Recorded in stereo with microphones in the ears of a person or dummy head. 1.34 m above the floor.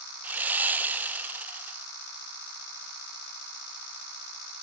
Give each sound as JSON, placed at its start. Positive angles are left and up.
{"t": 0.2, "sound": "sawing", "side_deg": -5, "distance_m": 0.5}